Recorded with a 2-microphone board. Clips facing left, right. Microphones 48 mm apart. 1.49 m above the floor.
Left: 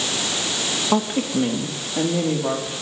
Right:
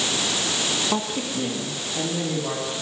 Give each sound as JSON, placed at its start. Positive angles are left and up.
{"t": 0.9, "sound": "a woman speaking", "side_deg": 20, "distance_m": 1.9}